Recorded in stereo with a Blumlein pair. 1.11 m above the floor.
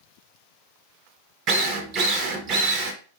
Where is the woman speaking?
No woman speaking in this recording.